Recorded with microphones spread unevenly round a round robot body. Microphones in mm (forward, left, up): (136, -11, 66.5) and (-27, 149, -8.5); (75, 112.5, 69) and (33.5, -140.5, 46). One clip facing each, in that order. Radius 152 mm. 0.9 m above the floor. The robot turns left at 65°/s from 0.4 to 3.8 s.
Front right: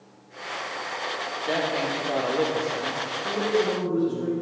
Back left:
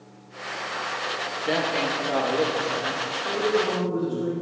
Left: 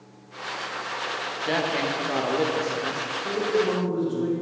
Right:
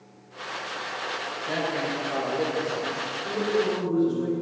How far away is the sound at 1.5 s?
About 1.2 m.